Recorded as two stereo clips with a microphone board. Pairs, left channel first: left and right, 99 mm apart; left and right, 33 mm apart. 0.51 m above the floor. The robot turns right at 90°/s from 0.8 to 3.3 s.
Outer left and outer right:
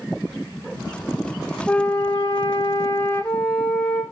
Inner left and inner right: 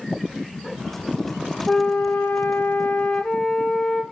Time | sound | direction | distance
1.7 | a flute | 10° left | 0.8 m